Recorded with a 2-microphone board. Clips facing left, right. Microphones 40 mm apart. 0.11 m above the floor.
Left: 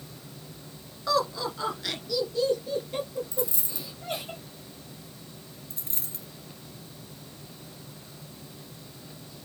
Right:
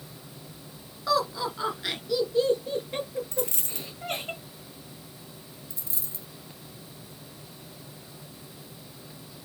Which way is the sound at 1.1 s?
Centre (ahead or behind).